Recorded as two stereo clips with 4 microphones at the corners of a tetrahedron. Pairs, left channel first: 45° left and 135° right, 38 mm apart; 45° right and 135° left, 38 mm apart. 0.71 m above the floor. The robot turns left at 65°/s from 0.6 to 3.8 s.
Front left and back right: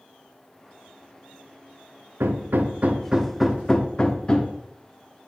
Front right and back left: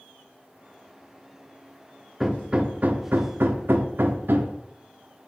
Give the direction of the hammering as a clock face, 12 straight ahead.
5 o'clock.